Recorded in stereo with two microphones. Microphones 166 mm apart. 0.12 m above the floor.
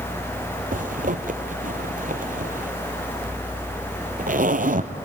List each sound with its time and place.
0.7 s a zipper: 55° right (ahead or behind), 1.0 m